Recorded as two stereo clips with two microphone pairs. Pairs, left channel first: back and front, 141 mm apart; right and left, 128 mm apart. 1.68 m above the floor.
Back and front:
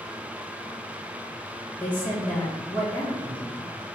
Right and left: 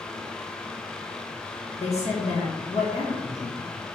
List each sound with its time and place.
1.8 s a woman speaking: 105° right, 1.4 m